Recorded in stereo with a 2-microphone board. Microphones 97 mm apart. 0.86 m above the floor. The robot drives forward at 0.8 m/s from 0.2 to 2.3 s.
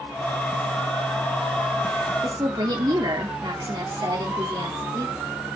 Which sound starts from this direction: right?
A woman speaking, at 2.2 s.